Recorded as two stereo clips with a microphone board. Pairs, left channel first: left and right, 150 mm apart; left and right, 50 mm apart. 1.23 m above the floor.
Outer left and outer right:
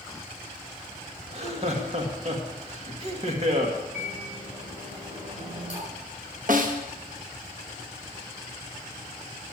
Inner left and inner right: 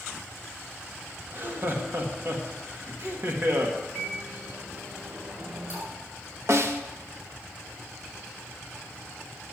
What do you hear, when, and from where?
1.3 s laughter: 45° right (ahead or behind), 1.7 m
3.9 s a microwave: 50° right (ahead or behind), 7 m
6.5 s a snare drum: 65° right (ahead or behind), 1.0 m